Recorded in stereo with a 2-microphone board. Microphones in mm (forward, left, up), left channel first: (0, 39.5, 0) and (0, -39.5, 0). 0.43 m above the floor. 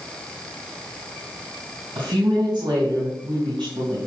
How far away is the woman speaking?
About 3.5 m.